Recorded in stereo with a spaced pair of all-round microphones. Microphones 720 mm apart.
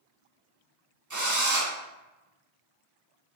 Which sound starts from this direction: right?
A drill, at 1.1 s.